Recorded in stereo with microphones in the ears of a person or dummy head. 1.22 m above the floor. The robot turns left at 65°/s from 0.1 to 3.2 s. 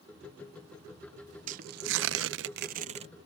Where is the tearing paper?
45° right; by 3.1 s 150° right.